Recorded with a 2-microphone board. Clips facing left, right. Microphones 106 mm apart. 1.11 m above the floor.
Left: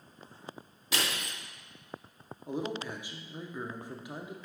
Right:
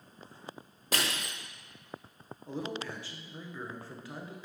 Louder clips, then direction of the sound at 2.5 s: Left 2 dB; 15° left (ahead or behind).